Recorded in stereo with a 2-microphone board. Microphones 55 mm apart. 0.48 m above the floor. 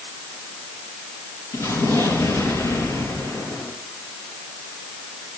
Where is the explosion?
85° left, 4 m.